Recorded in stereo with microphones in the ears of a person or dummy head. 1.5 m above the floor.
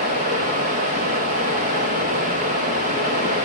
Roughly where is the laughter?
I don't hear laughter.